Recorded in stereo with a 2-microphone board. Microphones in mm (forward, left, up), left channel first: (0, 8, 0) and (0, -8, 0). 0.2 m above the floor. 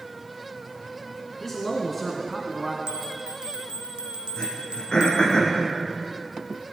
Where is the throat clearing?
45° left (ahead or behind), 5.5 m.